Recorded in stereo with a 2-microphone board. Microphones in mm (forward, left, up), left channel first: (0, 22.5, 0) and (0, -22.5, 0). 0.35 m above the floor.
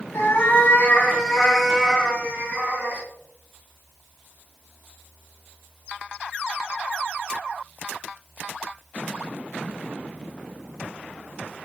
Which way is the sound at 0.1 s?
55° left (ahead or behind).